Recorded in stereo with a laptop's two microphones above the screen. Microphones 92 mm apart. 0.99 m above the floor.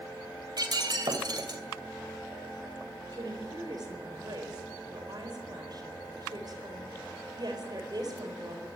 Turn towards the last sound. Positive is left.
turn(degrees=-50)  # may be behind; listen again after turning